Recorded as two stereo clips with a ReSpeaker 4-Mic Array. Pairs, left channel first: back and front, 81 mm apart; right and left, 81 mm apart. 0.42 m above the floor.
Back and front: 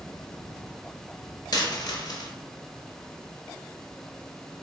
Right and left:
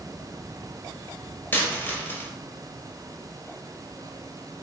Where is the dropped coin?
150° right, 0.7 m.